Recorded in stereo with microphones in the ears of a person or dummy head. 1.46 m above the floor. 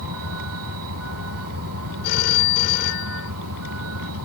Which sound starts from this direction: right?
A vehicle, at 0.0 s.